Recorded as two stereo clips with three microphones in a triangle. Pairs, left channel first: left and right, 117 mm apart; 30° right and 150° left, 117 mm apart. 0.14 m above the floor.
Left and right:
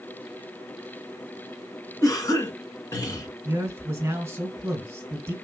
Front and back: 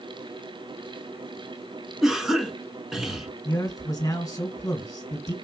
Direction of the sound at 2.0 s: 65° left.